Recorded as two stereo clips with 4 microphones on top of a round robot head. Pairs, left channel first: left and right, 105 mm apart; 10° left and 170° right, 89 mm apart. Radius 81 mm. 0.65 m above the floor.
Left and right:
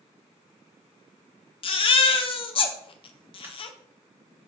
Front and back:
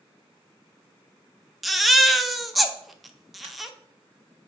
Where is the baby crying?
100° left, 0.6 m.